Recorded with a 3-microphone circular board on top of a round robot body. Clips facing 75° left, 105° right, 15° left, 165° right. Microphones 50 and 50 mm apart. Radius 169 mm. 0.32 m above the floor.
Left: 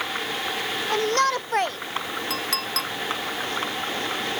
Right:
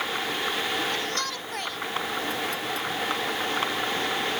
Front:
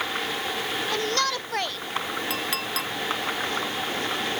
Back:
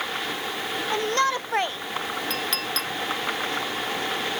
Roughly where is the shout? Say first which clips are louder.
Left 8 dB, back 4 dB; behind left.